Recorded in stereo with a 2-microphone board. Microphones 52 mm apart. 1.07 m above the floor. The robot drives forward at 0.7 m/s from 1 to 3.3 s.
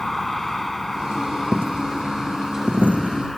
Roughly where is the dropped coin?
Right.